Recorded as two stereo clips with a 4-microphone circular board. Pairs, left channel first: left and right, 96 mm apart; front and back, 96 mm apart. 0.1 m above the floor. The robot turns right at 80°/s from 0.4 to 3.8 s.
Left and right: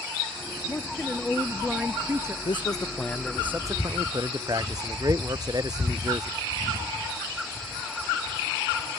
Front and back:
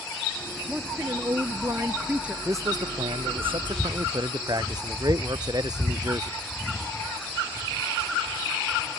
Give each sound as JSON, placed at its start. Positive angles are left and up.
{"t": 0.7, "sound": "a woman speaking", "azimuth_deg": 120}
{"t": 2.5, "sound": "a man speaking", "azimuth_deg": 115}